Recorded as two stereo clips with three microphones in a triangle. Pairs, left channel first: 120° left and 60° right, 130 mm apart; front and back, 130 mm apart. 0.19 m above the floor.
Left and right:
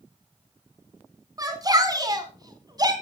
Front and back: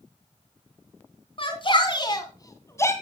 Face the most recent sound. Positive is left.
turn(degrees=-50)